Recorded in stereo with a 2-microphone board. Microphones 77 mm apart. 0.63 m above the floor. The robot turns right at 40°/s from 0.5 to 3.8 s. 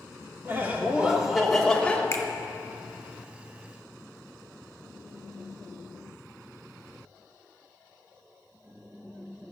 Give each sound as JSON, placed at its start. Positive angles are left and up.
{"t": 0.5, "sound": "laughter", "azimuth_deg": -40, "distance_m": 1.5}
{"t": 2.1, "sound": "a finger snap", "side_deg": 45, "distance_m": 1.3}